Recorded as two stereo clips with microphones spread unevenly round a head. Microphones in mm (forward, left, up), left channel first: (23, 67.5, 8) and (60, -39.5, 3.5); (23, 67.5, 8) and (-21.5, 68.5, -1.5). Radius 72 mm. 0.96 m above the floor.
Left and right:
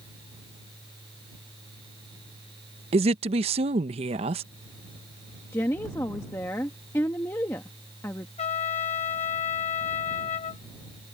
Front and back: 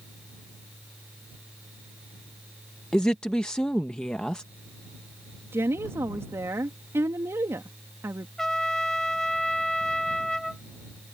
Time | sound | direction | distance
2.9 | a woman speaking | 85° right | ?
5.5 | a woman speaking | straight behind | ?
8.4 | a trumpet | 80° left | ?